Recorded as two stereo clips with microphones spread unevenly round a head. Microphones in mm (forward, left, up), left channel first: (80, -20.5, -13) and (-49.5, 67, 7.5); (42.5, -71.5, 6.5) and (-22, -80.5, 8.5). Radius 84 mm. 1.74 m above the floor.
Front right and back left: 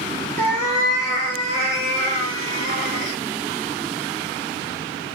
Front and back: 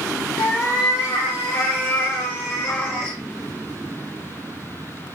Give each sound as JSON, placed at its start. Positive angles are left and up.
{"t": 0.4, "sound": "a cat meowing", "azimuth_deg": 45, "distance_m": 1.2}